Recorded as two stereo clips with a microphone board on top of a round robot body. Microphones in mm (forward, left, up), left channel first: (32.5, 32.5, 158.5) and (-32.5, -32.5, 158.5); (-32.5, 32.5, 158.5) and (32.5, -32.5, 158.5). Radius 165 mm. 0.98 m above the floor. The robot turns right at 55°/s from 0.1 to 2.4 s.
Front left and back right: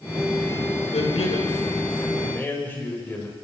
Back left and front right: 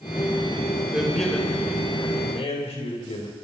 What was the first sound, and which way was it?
A man speaking, 30° left.